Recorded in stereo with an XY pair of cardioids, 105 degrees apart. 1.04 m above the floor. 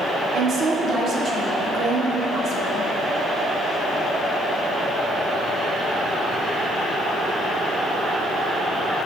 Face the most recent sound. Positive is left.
turn(degrees=-60)